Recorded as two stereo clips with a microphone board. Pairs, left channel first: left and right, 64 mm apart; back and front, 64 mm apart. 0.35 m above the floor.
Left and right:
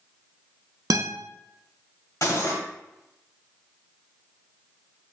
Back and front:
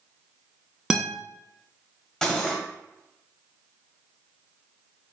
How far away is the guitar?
About 0.7 m.